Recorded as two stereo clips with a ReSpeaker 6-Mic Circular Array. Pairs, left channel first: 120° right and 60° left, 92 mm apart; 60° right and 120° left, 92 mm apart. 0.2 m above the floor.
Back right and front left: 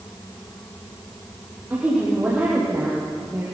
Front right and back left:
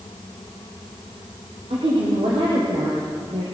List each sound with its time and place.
1.7 s a woman speaking: 130° left, 6 m